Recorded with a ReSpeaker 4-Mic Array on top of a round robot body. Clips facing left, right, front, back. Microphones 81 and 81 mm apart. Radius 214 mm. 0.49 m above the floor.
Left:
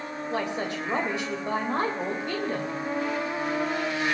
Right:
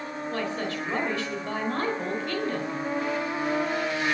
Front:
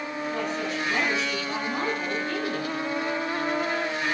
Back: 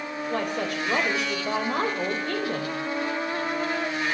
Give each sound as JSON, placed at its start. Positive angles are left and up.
{"t": 0.3, "sound": "a woman speaking", "azimuth_deg": 160, "distance_m": 4.0}